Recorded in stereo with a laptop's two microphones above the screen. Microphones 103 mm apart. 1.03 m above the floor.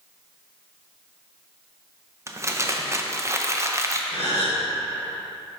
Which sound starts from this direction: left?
A gasp, at 4.1 s.